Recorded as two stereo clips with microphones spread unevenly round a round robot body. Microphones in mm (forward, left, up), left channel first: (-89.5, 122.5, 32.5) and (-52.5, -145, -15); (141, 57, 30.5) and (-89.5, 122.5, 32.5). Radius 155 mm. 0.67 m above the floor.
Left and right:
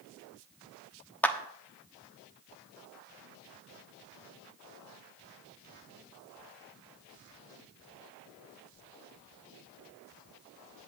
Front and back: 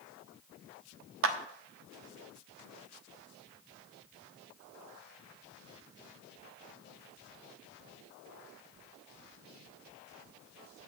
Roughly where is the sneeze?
No sneeze in this recording.